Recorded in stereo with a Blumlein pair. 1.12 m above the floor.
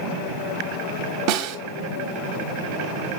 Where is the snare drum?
40° right, 1.8 m.